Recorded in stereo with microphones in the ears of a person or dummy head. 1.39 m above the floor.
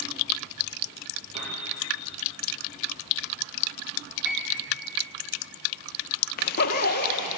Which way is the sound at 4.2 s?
5° right (ahead or behind).